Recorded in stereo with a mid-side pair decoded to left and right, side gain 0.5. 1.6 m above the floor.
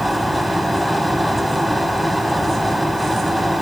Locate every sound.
0.0 s a fan: straight ahead, 0.9 m